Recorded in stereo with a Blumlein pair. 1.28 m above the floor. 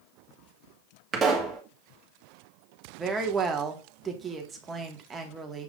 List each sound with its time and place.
1.1 s a pop: 20° right, 2.0 m
3.0 s a woman speaking: 15° right, 1.8 m